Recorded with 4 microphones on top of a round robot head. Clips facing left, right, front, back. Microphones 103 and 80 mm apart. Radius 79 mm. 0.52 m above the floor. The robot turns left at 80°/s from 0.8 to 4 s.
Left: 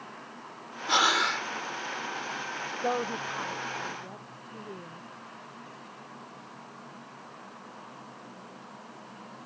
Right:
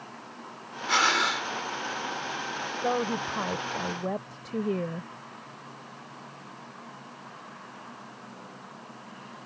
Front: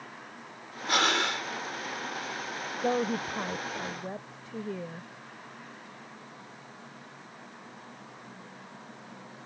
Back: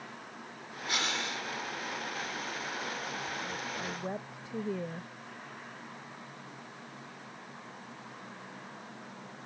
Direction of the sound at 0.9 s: 25° left.